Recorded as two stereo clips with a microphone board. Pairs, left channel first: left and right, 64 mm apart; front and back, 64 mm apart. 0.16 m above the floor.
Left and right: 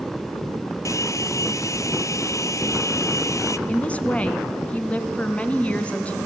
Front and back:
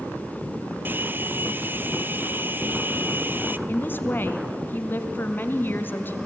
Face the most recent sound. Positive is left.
turn(degrees=35)